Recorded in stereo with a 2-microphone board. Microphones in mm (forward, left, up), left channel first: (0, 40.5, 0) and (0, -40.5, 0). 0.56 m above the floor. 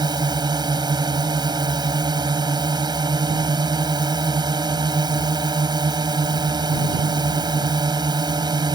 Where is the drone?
60° right (ahead or behind).